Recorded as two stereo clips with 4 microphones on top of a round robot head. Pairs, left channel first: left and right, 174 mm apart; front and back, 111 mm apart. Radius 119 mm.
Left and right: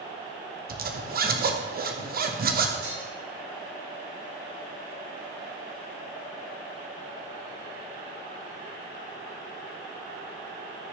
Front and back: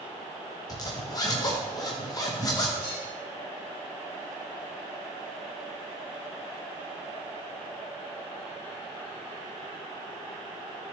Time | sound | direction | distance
0.7 | a zipper | 60° right | 1.1 m
2.8 | dishes clattering | 110° right | 4 m